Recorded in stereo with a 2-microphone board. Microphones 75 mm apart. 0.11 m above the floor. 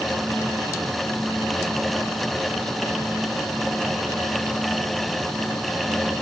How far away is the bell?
I don't hear a bell.